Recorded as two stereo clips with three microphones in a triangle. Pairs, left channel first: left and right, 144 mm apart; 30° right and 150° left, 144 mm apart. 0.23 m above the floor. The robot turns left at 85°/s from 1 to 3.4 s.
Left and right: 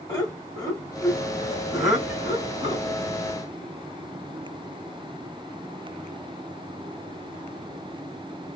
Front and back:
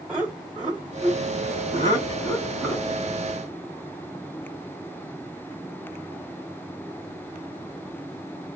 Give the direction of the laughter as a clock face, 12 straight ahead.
10 o'clock.